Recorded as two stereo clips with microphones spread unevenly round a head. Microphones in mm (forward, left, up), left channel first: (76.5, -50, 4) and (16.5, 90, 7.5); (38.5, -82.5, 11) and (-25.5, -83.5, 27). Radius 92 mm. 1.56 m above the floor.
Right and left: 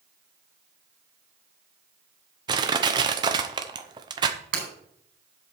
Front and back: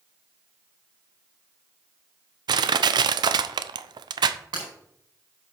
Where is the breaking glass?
140° left, 4.5 m.